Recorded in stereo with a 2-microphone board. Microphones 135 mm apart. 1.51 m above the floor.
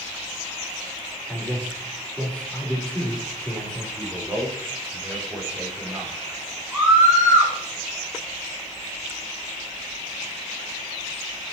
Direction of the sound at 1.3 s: 10° left (ahead or behind).